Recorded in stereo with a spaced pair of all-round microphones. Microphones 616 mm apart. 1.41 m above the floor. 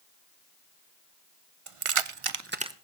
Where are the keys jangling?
55° right (ahead or behind), 0.8 m; by 2.8 s 5° right (ahead or behind), 0.6 m.